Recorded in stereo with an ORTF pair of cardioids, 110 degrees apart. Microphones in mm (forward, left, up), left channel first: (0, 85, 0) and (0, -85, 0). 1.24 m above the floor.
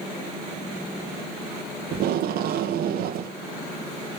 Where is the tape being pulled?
70° right, 0.8 m.